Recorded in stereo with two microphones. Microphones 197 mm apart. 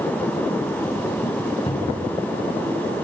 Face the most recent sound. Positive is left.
turn(degrees=25)  # may be behind; listen again after turning